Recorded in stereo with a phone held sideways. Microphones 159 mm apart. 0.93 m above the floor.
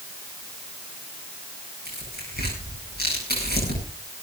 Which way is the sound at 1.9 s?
85° left.